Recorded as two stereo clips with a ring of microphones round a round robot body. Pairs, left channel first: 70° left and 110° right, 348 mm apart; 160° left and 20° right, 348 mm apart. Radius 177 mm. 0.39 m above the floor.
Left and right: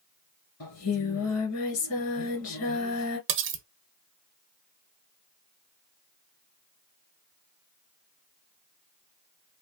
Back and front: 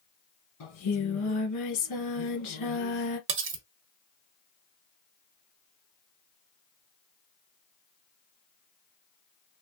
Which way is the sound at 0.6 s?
115° left.